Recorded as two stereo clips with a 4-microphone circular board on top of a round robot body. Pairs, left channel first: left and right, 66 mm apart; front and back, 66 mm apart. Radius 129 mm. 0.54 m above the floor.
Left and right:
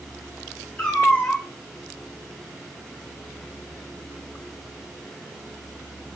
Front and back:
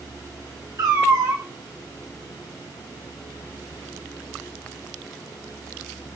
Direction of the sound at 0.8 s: 170° left.